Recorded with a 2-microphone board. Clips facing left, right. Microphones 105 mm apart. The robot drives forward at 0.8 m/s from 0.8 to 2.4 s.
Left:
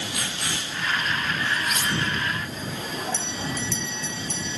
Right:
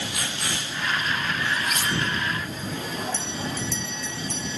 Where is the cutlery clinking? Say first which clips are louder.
Even; 45° right (ahead or behind), 4 m; by 1.9 s 50° right (ahead or behind), 3.5 m.